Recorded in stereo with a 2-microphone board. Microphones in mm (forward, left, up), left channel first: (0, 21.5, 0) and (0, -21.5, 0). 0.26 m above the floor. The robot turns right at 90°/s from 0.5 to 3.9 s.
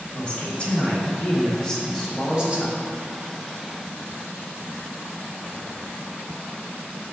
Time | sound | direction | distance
0.1 | a man speaking | 50° left | 1.6 m